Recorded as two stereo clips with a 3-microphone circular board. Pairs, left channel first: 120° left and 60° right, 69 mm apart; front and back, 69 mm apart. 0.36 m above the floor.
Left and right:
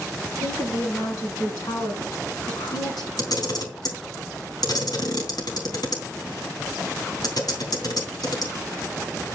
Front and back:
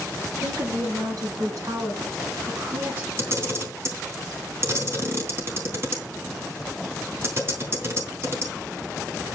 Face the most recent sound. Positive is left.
turn(degrees=130)